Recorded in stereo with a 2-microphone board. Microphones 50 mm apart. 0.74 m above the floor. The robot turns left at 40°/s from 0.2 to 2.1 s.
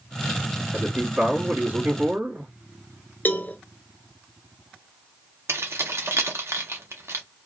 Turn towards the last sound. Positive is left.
turn(degrees=-70)  # may be behind; listen again after turning